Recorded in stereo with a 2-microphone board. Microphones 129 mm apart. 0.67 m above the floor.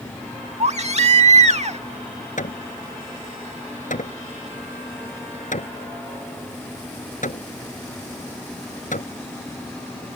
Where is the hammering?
80° left.